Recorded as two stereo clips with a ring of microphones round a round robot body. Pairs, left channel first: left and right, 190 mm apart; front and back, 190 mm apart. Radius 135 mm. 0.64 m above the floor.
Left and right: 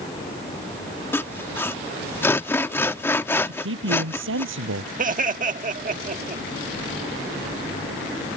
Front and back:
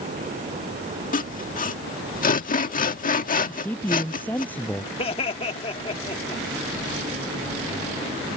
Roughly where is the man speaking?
Right.